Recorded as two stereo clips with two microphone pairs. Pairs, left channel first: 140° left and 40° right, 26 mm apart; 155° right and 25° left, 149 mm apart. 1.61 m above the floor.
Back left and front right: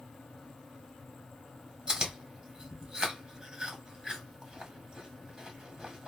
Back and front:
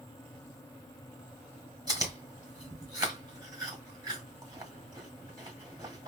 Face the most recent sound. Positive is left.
turn(degrees=-10)